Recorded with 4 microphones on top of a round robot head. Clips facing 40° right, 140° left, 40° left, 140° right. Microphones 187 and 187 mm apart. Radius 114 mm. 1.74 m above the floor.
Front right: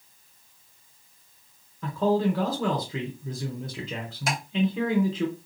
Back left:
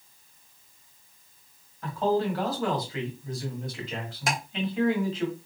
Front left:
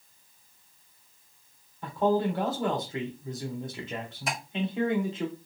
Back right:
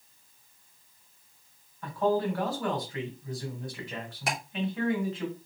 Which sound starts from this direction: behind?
Ticking, at 4.3 s.